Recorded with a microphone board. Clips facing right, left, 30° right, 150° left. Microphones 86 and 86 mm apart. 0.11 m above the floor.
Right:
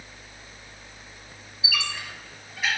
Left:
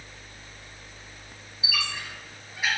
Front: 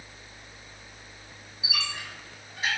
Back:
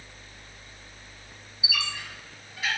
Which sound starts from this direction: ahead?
A squeak, at 1.6 s.